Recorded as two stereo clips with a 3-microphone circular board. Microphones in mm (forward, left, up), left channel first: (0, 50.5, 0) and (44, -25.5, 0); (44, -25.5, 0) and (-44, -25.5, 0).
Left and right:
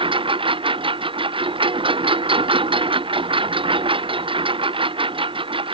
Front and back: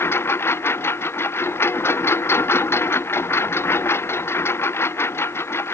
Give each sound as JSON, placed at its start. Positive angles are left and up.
{"t": 0.0, "sound": "a lawn mower", "azimuth_deg": -65}